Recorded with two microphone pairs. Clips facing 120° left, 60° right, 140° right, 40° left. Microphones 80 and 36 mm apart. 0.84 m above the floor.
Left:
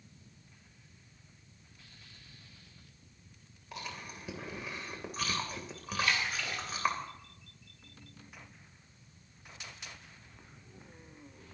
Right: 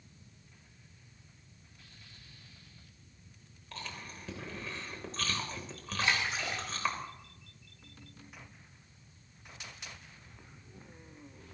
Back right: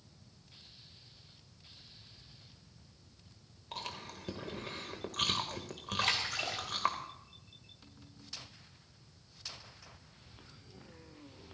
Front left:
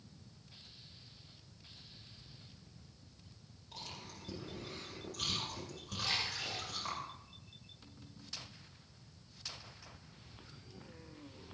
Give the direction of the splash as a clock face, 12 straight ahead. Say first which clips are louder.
Right 1 dB, back right 4 dB; 4 o'clock.